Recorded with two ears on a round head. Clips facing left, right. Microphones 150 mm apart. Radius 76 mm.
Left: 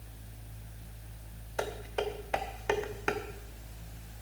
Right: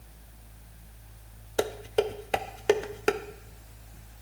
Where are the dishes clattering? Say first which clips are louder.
Right 7 dB; 35° right (ahead or behind), 0.7 m.